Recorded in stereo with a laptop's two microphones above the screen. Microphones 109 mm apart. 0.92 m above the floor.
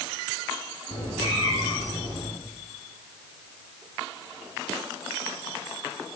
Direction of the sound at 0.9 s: 75° left (ahead or behind).